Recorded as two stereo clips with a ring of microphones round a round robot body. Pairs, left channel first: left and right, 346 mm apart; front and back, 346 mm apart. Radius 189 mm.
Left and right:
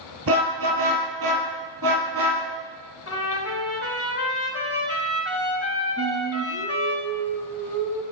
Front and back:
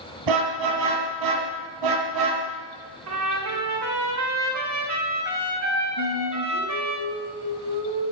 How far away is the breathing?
No breathing in this recording.